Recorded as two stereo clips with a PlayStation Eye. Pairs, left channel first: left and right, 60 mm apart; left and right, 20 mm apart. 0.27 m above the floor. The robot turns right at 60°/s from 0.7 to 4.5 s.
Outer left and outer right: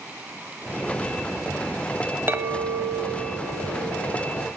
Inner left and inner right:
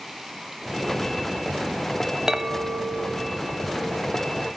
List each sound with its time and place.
2.3 s a clink: 90° right, 0.6 m; by 4.5 s 40° left, 0.6 m